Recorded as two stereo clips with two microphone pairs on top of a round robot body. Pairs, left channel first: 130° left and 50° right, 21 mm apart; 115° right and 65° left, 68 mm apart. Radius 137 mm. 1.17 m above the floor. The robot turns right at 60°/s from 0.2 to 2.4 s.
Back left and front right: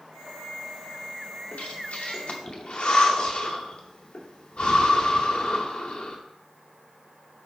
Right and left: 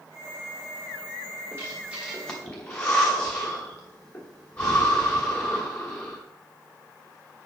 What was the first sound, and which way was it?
Breathing, 115° left.